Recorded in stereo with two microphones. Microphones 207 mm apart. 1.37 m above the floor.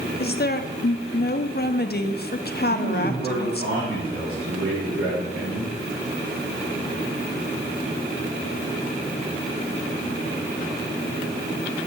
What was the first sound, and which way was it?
A woman speaking, 50° left (ahead or behind).